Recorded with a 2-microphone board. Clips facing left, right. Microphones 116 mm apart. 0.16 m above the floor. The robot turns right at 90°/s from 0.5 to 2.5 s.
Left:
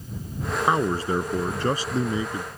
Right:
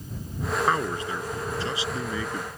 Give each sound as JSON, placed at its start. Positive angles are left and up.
{"t": 0.7, "sound": "a man speaking", "azimuth_deg": 20}